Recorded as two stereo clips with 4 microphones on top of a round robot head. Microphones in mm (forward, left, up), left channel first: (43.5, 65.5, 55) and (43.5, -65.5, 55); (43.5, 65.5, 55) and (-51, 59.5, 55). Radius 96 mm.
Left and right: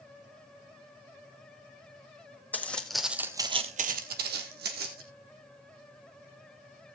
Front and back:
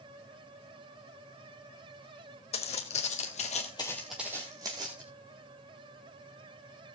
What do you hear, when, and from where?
2.5 s footsteps: 15° left, 1.7 m; by 5.0 s 115° right, 2 m